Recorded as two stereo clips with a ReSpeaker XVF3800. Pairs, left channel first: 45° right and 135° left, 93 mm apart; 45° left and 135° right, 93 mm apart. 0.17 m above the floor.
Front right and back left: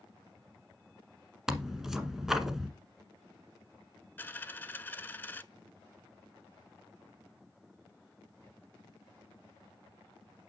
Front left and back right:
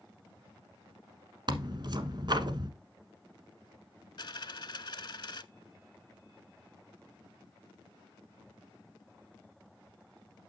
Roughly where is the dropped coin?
Ahead.